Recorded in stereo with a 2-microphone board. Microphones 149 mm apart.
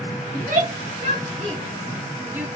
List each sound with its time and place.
0.3 s a shout: 60° right (ahead or behind), 1.3 m; by 2.5 s 10° right (ahead or behind), 0.9 m